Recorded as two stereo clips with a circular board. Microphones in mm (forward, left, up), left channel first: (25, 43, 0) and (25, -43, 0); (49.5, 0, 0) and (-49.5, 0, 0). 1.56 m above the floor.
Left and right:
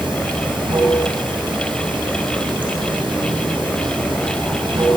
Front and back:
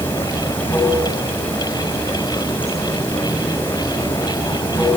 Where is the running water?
70° right, 6.5 m.